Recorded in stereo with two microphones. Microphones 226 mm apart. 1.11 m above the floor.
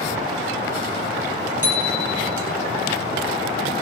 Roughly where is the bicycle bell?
Left.